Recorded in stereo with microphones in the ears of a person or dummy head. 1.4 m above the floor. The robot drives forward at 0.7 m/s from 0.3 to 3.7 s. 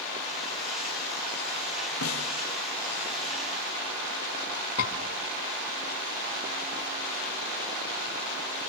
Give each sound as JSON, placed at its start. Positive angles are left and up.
{"t": 2.0, "sound": "a snare drum", "side_deg": 85, "distance_m": 2.5}
{"t": 4.8, "sound": "a scream", "side_deg": 85, "distance_m": 3.0}